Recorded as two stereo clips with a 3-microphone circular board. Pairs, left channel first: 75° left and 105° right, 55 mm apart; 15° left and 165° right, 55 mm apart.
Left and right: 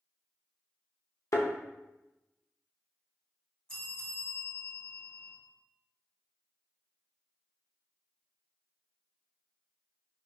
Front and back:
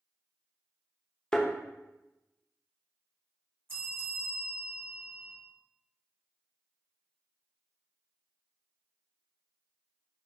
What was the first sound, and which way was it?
A thud, 90° left.